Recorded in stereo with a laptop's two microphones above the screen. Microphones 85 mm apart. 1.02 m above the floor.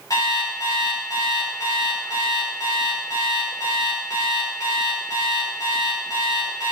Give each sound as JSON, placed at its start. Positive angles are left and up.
{"t": 0.1, "sound": "an alarm clock", "side_deg": 45, "distance_m": 2.5}